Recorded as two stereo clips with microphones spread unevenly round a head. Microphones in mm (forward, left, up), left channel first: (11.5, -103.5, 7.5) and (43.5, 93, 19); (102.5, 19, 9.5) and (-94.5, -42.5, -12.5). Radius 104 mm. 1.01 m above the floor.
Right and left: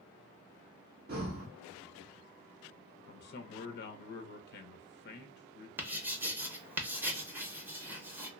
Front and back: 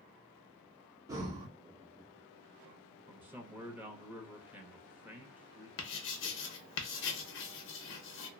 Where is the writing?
Straight ahead, 0.6 m.